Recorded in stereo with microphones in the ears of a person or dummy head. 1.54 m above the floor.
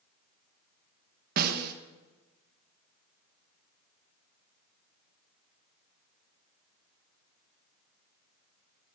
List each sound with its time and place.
1.4 s a snare drum: 55° right (ahead or behind), 1.8 m